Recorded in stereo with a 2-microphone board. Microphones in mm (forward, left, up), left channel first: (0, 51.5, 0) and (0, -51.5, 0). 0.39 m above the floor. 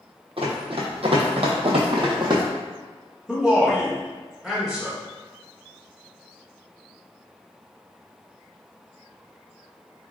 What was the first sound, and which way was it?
Running footsteps, 65° right (ahead or behind).